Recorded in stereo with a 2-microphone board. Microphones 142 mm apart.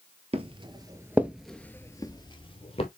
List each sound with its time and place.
0.3 s footsteps: 45° right (ahead or behind), 1.2 m; by 2.9 s 45° left (ahead or behind), 1.6 m